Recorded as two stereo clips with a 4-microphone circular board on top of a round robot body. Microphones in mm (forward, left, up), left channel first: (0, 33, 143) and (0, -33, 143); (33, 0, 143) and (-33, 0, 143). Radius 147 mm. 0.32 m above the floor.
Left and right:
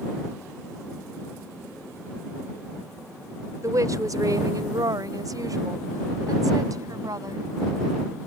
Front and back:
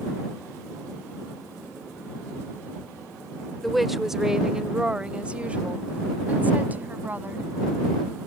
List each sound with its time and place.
3.6 s a woman speaking: 90° right; by 7.5 s 120° right